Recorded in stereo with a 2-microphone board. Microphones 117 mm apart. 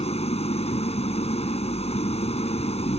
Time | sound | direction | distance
0.0 | an engine running | 65° left (ahead or behind) | ?